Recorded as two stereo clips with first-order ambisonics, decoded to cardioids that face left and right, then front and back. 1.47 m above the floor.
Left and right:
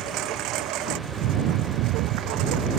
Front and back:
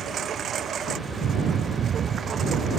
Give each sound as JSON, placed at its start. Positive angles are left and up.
{"t": 0.0, "sound": "a lawn mower", "azimuth_deg": -125}